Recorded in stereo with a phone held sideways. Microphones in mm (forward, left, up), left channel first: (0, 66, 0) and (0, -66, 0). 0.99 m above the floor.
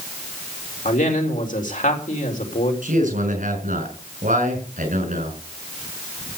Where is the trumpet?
I don't hear a trumpet.